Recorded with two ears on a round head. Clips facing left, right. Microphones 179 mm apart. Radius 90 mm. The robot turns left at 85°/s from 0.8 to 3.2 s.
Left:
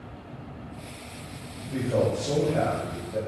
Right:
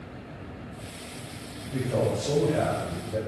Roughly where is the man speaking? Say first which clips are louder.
Left 2 dB; ahead left.